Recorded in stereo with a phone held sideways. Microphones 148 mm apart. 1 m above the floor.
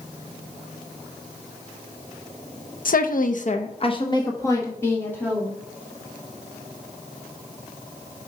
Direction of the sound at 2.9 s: 70° left (ahead or behind).